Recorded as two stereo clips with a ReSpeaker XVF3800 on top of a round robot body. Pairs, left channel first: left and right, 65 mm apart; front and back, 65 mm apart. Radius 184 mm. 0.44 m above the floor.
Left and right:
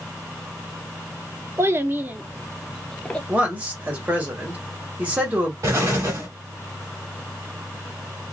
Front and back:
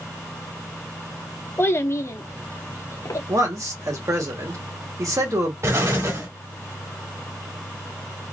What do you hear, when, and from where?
1.6 s a child speaking: 50° right, 1.0 m; by 3.2 s 20° left, 0.9 m
3.3 s a man speaking: 155° right, 1.6 m
5.6 s an explosion: 140° right, 1.7 m